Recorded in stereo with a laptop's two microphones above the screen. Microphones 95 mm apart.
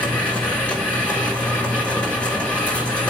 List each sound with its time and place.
0.0 s a machine running: 15° left (ahead or behind), 3.5 m